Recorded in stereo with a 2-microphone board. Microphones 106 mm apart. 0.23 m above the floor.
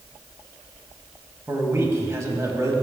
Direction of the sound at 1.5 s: 25° right (ahead or behind).